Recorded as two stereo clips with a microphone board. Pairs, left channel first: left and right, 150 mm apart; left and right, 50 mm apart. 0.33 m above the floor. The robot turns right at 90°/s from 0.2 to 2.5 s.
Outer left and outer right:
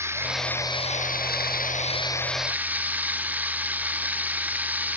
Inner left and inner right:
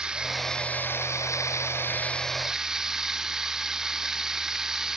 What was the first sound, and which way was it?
Running water, 15° right.